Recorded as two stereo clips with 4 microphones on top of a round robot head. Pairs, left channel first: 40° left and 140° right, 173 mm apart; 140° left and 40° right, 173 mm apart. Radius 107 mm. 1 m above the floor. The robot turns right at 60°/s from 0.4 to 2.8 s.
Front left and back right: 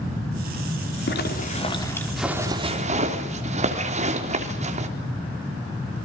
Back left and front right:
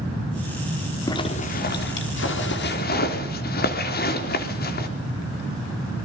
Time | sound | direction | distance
1.1 | a zipper | 65° left | 3.5 m